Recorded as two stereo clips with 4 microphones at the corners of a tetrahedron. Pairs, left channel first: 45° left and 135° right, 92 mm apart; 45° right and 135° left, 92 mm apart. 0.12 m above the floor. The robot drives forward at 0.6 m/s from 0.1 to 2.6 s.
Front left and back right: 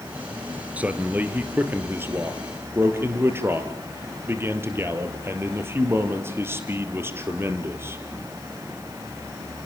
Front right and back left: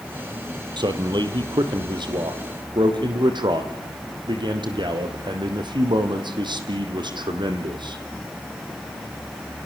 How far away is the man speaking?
About 2 m.